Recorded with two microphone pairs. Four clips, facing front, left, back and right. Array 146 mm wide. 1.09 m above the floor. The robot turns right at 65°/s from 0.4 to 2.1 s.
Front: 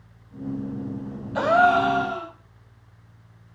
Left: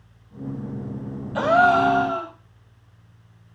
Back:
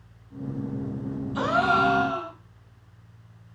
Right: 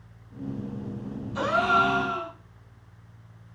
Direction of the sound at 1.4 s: 40° left.